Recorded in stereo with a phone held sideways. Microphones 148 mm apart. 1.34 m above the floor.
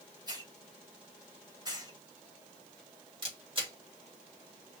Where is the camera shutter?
35° right (ahead or behind), 3 m.